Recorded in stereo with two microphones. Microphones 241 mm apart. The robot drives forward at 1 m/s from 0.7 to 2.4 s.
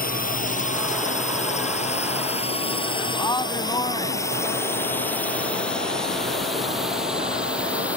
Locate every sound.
0.0 s a drone: 35° left (ahead or behind); by 8.0 s 5° right (ahead or behind)
3.1 s a man speaking: 15° left (ahead or behind)